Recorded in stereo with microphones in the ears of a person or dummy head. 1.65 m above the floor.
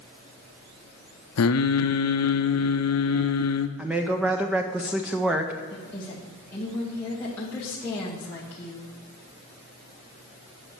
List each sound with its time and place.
1.4 s singing: 80° left, 0.6 m
3.8 s a woman speaking: 5° right (ahead or behind), 0.5 m
5.7 s a woman speaking: 10° left (ahead or behind), 2.5 m